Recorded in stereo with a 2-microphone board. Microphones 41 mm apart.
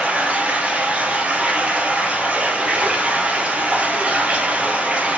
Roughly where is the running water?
Right.